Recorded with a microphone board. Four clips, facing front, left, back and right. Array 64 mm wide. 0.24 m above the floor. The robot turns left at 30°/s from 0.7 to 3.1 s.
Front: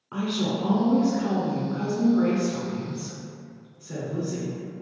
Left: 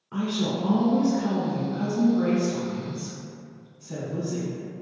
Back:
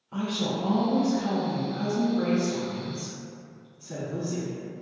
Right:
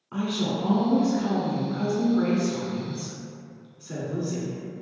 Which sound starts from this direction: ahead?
A woman speaking, at 0.1 s.